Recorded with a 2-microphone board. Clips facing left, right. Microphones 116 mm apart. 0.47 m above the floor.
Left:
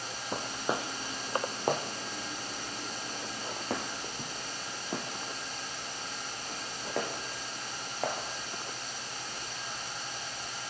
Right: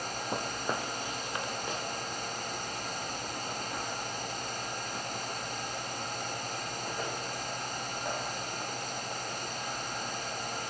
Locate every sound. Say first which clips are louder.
0.3 s footsteps: left 2 dB; 5° right (ahead or behind), 0.9 m; by 8.2 s 85° left, 5 m